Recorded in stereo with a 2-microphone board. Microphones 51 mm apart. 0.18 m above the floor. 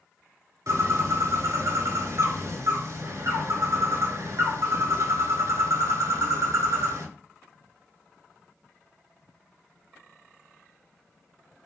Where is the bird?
70° right (ahead or behind), 0.6 m.